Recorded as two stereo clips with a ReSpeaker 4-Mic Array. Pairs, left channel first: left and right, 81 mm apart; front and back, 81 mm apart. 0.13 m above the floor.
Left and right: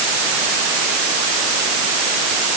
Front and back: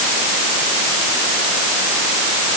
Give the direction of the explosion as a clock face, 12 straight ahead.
No explosion in this recording.